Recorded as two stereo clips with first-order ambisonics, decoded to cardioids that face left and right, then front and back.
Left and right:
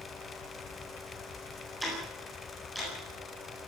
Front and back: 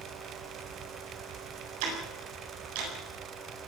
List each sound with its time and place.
1.8 s ticking: straight behind, 9 m